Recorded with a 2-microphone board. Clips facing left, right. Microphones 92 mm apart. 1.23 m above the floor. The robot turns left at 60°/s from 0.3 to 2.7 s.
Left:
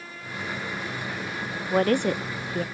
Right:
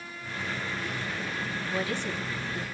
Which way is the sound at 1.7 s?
45° left (ahead or behind).